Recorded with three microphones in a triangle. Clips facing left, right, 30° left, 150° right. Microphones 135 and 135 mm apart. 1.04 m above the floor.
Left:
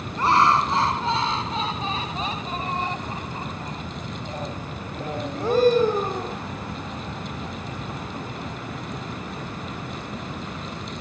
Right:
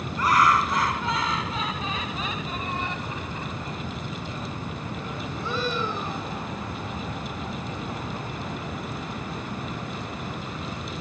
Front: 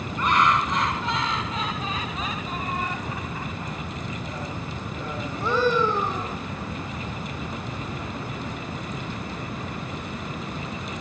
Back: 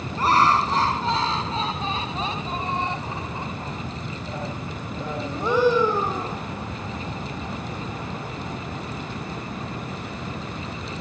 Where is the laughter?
155° left; by 6.4 s 130° left.